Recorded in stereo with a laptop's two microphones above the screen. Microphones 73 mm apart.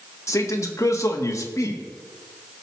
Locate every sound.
0.3 s a man speaking: 40° left (ahead or behind), 1.4 m